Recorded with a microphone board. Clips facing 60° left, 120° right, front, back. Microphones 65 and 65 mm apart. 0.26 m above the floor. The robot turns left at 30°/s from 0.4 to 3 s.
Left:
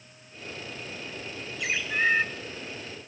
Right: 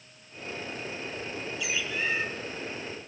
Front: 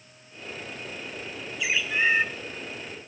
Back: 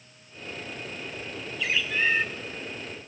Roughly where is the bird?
Left.